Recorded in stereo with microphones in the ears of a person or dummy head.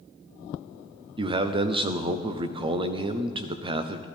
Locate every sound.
1.2 s a man speaking: 30° right (ahead or behind), 0.7 m